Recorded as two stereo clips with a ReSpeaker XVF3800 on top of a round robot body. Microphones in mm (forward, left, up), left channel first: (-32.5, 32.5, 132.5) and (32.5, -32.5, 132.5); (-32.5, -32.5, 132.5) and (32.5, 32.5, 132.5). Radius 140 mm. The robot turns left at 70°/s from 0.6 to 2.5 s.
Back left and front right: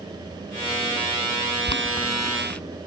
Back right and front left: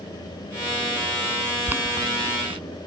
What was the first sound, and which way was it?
Boiling, 120° left.